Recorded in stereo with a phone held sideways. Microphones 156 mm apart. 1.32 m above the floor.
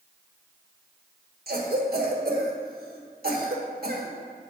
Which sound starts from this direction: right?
A cough, at 1.5 s.